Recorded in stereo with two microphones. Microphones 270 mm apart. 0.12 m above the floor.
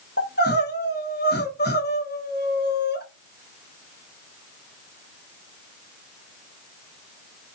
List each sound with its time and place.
0.2 s crying: 40° left (ahead or behind), 0.8 m